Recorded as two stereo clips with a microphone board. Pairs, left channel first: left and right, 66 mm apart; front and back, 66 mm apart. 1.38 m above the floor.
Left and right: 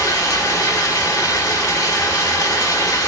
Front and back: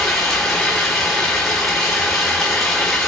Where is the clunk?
No clunk in this recording.